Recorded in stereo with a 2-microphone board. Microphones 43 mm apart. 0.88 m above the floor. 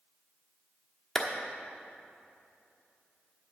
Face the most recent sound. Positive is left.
turn(degrees=5)  # may be behind; listen again after turning